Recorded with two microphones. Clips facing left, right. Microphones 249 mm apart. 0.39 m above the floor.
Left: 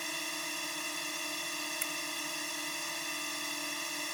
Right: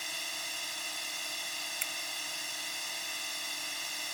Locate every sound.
0.0 s a drone: 60° left (ahead or behind)
1.8 s a finger snap: 25° right (ahead or behind)